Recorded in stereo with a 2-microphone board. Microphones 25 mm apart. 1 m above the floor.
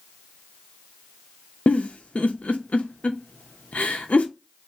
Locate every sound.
1.7 s a giggle: 65° left (ahead or behind), 0.6 m